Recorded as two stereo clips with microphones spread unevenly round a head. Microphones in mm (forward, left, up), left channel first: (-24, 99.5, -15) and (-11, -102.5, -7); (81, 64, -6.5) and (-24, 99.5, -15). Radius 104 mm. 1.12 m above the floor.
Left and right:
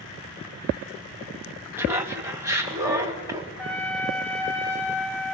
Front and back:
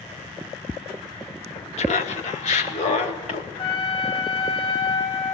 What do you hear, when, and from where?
1.8 s laughter: 5° right, 2.0 m; by 3.5 s 10° right, 3 m
3.6 s a trumpet: 10° left, 3.5 m